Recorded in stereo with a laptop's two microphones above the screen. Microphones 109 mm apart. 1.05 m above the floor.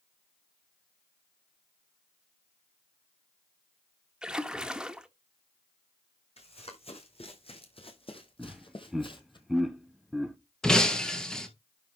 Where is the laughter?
5° right (ahead or behind), 0.7 m.